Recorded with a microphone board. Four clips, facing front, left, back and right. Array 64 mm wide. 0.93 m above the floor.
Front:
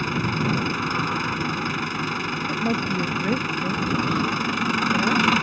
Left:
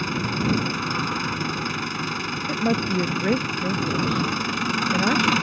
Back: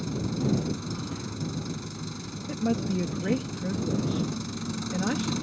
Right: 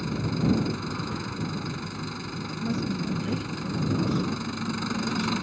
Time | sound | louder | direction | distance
0.0 | an engine running | left 3 dB, front 6 dB | 30° left | ?
2.5 | a woman speaking | left 7 dB, front 1 dB | 85° left | ?